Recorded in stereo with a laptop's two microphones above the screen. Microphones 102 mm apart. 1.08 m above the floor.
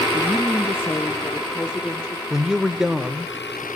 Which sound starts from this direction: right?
A woman speaking, at 0.1 s.